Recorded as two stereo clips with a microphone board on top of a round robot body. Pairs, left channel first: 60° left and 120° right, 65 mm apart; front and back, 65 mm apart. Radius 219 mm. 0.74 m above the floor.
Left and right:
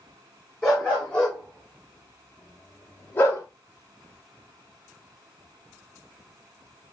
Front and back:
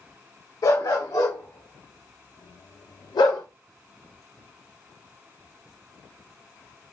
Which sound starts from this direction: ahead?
A dog barking, at 0.6 s.